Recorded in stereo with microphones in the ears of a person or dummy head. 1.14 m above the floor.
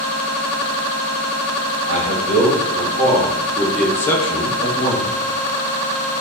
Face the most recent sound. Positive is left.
turn(degrees=40)  # may be behind; listen again after turning